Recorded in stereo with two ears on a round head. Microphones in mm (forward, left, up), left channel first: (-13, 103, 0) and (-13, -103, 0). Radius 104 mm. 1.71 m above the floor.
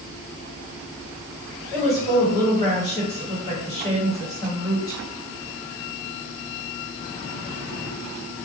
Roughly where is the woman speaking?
Centre.